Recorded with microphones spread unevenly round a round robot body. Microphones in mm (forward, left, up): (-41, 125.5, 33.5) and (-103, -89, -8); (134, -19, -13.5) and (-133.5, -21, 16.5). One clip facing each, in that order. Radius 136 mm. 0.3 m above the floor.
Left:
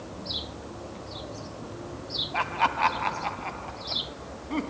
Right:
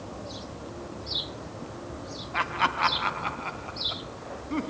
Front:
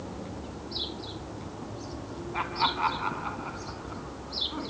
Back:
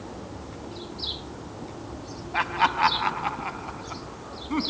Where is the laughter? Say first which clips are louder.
Left 2 dB, back 7 dB; 170° right, 2.5 m; by 4.7 s 165° left, 3 m.